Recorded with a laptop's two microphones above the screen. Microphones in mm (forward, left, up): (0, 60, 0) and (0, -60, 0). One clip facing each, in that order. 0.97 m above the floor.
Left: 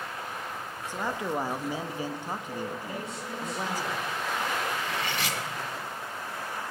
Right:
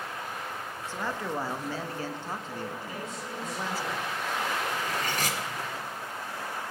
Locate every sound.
0.9 s a man speaking: 15° left (ahead or behind), 1.3 m
2.8 s a man speaking: 65° left (ahead or behind), 6.5 m
4.7 s cutlery clinking: 45° right (ahead or behind), 1.3 m